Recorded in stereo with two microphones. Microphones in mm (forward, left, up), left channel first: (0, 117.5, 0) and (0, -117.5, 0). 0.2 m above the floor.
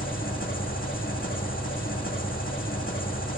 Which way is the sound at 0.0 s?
35° left (ahead or behind).